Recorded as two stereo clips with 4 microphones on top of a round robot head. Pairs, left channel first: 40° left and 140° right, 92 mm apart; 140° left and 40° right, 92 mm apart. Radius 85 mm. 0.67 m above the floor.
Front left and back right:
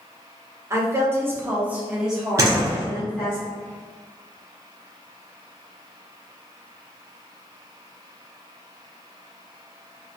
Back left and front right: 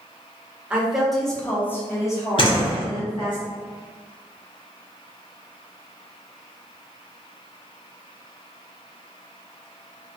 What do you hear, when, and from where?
0.7 s a woman speaking: 110° right, 1.0 m; by 3.4 s 120° left, 1.4 m
2.4 s a door slam: 160° left, 1.0 m